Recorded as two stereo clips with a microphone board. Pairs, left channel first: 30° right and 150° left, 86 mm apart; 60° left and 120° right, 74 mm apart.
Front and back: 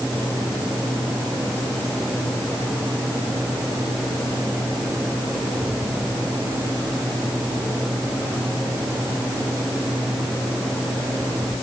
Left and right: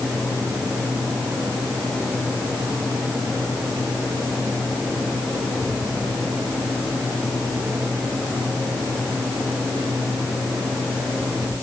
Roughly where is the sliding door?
I don't hear a sliding door.